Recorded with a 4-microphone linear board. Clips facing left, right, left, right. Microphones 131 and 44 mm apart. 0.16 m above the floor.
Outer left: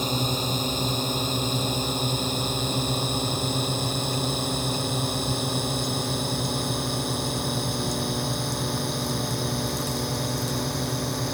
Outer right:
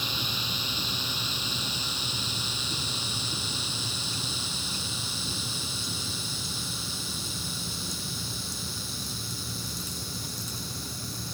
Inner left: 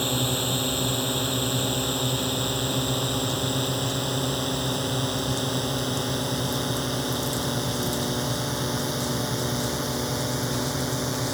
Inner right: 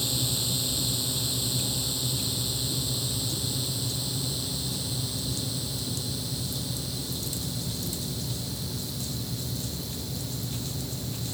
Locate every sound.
0.0 s a drone: 45° left (ahead or behind); by 11.3 s 70° left (ahead or behind)